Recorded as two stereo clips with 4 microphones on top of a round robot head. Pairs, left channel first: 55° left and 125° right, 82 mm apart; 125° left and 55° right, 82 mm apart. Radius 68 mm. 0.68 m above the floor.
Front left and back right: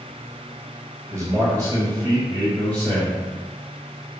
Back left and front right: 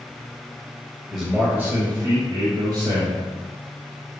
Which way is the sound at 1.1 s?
140° right.